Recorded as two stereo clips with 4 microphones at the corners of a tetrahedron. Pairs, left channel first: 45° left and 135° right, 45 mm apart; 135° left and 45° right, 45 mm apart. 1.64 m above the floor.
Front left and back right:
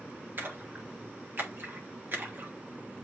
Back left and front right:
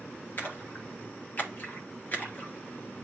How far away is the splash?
About 1.6 m.